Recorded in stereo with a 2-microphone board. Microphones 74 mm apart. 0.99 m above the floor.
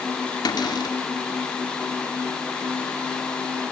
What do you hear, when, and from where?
0.5 s a cupboard door: 65° left (ahead or behind), 2 m